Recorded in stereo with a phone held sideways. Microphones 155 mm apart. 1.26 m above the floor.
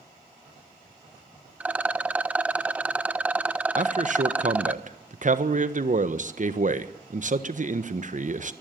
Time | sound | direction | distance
1.6 | a rattle | 10° right (ahead or behind) | 0.7 m
3.8 | a man speaking | 55° right (ahead or behind) | 1.3 m